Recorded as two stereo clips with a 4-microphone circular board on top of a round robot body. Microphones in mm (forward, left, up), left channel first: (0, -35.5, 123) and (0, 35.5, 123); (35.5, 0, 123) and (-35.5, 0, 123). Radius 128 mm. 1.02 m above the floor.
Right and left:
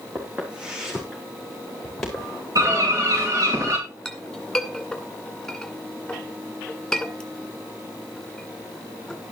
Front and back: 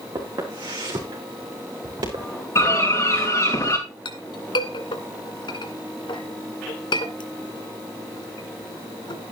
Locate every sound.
0.1 s footsteps: 155° left, 4.5 m; by 2.3 s 175° right, 5.5 m
2.5 s a bird: 55° left, 6 m
4.0 s a clink: 10° right, 2 m